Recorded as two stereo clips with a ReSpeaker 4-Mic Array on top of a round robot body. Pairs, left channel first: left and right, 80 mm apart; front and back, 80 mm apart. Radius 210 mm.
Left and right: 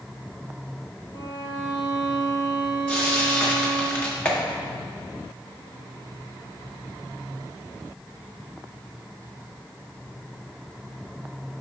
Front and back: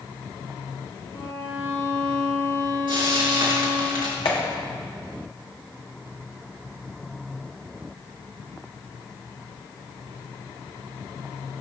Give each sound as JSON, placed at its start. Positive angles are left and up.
{"t": 1.1, "sound": "a violin", "azimuth_deg": 65, "distance_m": 3.5}
{"t": 2.9, "sound": "frying", "azimuth_deg": 155, "distance_m": 3.0}
{"t": 4.2, "sound": "a clap", "azimuth_deg": 15, "distance_m": 1.6}